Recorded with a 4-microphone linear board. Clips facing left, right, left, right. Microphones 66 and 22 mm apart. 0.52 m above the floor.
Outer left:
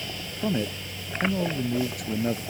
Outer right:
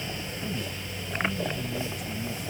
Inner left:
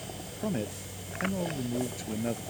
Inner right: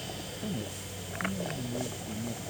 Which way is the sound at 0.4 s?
55° left (ahead or behind).